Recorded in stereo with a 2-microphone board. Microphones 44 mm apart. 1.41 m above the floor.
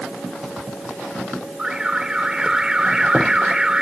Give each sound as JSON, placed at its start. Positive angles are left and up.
{"t": 1.6, "sound": "an alarm", "side_deg": -15}